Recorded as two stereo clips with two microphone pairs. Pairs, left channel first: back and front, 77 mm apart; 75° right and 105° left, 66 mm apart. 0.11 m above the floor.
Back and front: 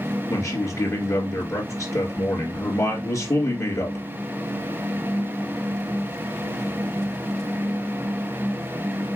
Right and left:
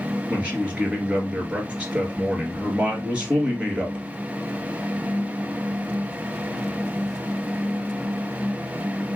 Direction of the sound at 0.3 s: 170° left.